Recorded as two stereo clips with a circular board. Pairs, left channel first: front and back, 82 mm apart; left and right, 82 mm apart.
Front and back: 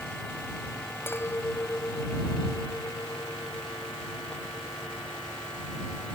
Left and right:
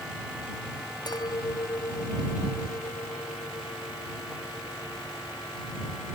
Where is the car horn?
No car horn in this recording.